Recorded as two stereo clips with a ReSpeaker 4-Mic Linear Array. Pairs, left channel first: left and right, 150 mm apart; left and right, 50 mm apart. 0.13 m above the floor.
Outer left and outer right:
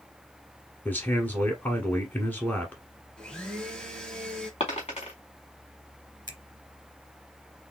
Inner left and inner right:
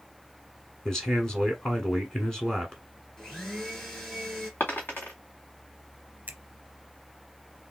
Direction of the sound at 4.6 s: 45° left (ahead or behind).